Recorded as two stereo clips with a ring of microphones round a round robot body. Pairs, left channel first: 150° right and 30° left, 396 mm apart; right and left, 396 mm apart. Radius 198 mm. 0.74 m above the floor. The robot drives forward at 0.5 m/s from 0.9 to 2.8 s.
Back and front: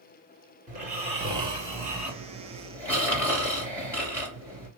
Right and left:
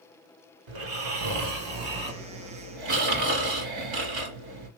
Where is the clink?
No clink in this recording.